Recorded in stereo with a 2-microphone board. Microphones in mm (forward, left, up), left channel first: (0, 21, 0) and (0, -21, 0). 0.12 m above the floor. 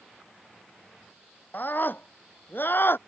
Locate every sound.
1.5 s a scream: 50° left (ahead or behind); by 3.0 s 60° left (ahead or behind)